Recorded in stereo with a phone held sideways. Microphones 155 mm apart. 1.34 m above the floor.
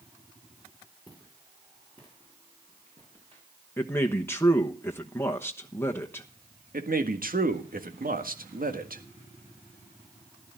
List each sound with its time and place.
1.1 s footsteps: 25° right (ahead or behind), 9 m; by 3.4 s 40° right (ahead or behind), 7.5 m
3.8 s a man speaking: 15° left (ahead or behind), 1.1 m
6.7 s a man speaking: 70° right (ahead or behind), 1.7 m